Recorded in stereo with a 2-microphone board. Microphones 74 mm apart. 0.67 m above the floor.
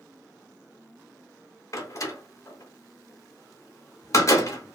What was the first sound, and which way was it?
A door slam, 40° left (ahead or behind).